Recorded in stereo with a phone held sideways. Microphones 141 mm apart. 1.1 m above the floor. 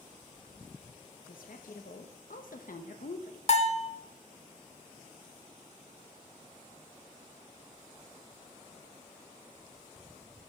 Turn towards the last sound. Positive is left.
turn(degrees=50)  # may be behind; listen again after turning